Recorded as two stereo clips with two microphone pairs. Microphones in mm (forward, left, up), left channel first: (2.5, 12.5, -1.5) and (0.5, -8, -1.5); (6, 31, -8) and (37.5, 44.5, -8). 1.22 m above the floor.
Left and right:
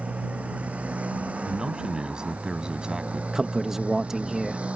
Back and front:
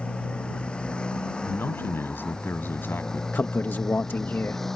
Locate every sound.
0.0 s a motorcycle: 100° right; by 4.8 s 75° right
1.4 s a man speaking: 150° right
3.3 s a man speaking: 165° right